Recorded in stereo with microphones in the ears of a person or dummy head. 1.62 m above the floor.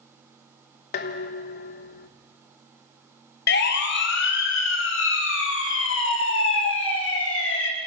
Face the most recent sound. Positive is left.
turn(degrees=90)